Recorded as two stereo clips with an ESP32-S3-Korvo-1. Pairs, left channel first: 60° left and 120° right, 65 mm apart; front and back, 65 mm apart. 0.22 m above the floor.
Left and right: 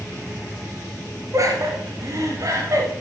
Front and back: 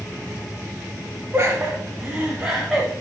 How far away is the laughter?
About 1.5 m.